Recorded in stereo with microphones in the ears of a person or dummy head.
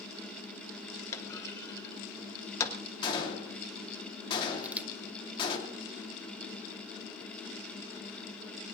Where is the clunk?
20° left (ahead or behind), 1.3 m.